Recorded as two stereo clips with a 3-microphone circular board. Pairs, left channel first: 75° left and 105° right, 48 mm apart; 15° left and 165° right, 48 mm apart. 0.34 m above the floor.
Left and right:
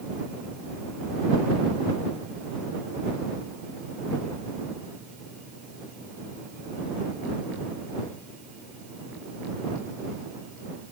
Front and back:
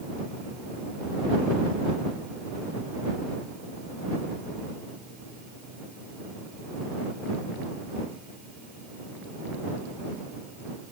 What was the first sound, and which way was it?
Only background noise.